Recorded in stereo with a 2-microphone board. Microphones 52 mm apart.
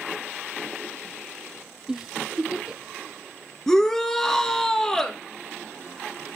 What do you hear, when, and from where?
1.9 s a giggle: 10° right (ahead or behind), 0.6 m
3.7 s a shout: 10° left (ahead or behind), 1.4 m